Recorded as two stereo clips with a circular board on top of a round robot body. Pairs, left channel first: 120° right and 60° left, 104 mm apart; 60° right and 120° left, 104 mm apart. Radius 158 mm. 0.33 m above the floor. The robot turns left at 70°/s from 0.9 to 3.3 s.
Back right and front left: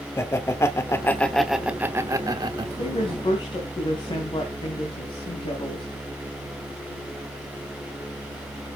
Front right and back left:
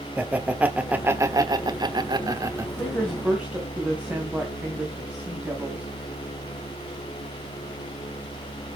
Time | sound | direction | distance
0.2 | laughter | 170° right | 1.4 m
2.8 | a woman speaking | 125° right | 3 m